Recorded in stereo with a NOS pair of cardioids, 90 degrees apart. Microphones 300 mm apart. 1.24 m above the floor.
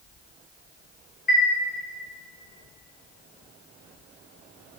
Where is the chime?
35° left, 1.7 m.